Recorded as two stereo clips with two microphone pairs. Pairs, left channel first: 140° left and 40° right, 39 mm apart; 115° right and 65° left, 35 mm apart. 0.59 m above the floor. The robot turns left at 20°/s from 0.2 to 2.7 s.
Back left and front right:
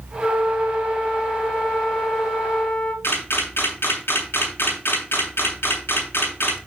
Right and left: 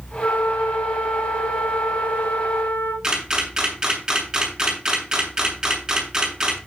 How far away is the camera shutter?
About 6 m.